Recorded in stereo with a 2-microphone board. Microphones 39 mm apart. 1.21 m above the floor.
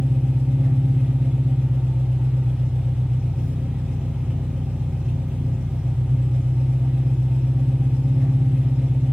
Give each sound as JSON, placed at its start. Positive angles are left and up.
{"t": 0.0, "sound": "an engine running", "side_deg": -15, "distance_m": 1.9}